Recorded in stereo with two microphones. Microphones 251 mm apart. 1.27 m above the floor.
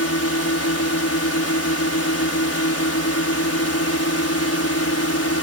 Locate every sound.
0.0 s a drone: 70° left (ahead or behind)